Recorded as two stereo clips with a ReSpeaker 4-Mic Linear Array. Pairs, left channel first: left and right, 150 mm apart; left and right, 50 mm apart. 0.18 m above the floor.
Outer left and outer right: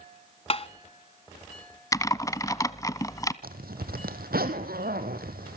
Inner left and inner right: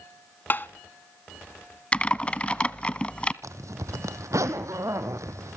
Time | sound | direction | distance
0.5 | tapping | 40° left (ahead or behind) | 1.2 m
1.9 | typing on a keyboard | 25° left (ahead or behind) | 1.1 m
3.4 | a zipper | 85° right | 2.5 m